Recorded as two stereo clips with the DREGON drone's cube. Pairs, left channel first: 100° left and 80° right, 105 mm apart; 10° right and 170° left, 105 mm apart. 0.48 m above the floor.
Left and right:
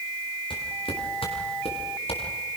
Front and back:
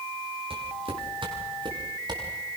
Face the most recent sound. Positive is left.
turn(degrees=125)